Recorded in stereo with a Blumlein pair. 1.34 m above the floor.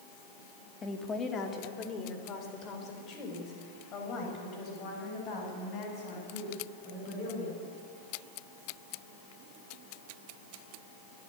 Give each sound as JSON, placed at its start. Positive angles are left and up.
{"t": 0.8, "sound": "a woman speaking", "azimuth_deg": 15, "distance_m": 2.0}